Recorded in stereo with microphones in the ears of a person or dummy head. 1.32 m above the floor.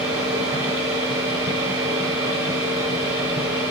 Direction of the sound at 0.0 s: 15° right (ahead or behind).